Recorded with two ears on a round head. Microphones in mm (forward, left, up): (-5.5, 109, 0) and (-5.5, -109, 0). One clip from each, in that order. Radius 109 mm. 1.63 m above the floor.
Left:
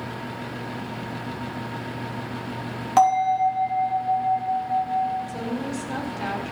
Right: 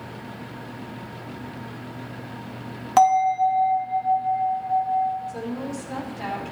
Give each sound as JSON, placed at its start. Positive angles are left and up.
{"t": 3.0, "sound": "a bell", "side_deg": -10, "distance_m": 3.5}
{"t": 5.3, "sound": "a woman speaking", "side_deg": 10, "distance_m": 4.5}